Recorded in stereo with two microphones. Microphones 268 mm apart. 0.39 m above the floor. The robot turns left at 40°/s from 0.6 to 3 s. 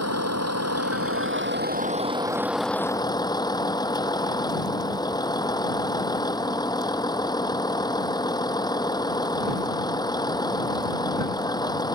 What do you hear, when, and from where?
0.0 s a vehicle: 100° right; by 12.0 s 165° left